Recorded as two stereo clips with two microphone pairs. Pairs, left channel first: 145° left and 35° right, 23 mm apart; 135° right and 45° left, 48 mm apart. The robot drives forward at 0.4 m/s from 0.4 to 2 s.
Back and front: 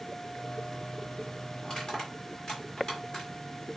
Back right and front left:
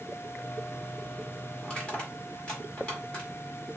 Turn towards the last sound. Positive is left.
turn(degrees=165)